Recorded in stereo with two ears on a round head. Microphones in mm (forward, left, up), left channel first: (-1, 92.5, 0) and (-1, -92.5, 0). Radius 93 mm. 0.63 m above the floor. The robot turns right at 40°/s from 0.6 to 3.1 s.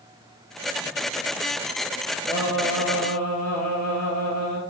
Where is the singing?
15° left, 2.5 m; by 4.6 s 50° left, 2.5 m.